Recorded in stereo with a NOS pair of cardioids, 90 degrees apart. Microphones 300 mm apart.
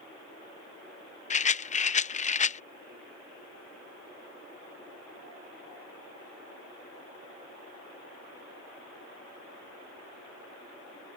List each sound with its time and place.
1.3 s a rattle: 25° left